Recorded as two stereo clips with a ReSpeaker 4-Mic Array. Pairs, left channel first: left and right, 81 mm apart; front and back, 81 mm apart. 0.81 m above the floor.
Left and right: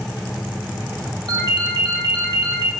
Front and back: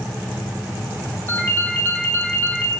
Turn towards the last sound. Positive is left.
turn(degrees=-60)